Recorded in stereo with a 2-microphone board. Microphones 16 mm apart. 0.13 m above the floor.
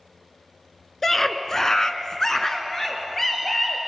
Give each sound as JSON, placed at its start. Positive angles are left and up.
{"t": 1.0, "sound": "a scream", "side_deg": 15, "distance_m": 1.5}